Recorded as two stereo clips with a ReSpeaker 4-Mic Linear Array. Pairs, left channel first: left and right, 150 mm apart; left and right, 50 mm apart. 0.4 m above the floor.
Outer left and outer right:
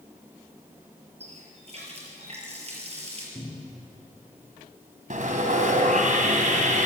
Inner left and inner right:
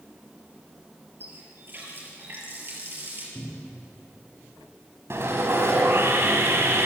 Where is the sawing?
60° right (ahead or behind), 3 m.